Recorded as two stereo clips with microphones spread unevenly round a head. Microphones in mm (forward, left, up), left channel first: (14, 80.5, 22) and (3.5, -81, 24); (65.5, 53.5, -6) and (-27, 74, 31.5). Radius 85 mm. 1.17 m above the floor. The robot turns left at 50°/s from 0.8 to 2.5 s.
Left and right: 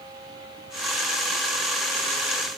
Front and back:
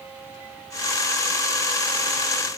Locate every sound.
Only background noise.